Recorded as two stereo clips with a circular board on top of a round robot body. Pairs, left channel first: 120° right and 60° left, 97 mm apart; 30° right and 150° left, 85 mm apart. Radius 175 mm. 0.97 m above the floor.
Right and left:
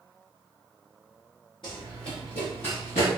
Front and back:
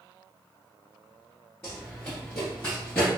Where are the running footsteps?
95° right, 1.0 m.